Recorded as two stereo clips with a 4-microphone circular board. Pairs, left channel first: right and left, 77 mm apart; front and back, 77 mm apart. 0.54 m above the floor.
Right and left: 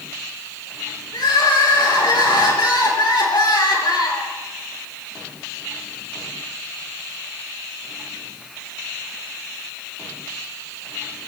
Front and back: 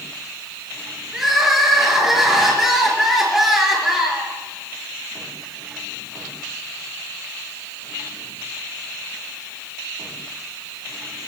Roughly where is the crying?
Right.